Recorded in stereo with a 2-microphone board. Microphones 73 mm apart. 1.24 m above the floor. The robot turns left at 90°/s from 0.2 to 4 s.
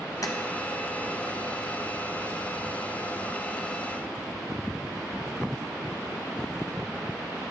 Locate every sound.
0.2 s tapping: 50° left (ahead or behind), 0.7 m; by 0.3 s 60° left (ahead or behind), 0.7 m